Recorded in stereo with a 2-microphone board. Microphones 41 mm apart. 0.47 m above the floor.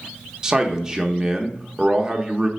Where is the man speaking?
15° right (ahead or behind), 0.8 m.